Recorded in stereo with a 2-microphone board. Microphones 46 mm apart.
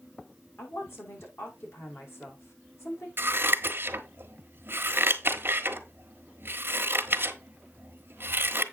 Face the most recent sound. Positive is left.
turn(degrees=-50)  # may be behind; listen again after turning